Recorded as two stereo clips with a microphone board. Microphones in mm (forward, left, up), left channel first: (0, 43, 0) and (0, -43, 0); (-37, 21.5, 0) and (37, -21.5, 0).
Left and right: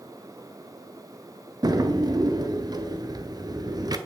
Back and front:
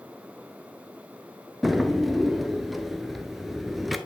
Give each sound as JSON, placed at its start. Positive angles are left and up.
{"t": 1.6, "sound": "a drawer", "azimuth_deg": -120, "distance_m": 0.6}